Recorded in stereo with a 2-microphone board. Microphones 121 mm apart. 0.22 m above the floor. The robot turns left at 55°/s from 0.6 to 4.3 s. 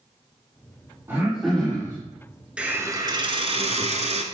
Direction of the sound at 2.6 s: 10° right.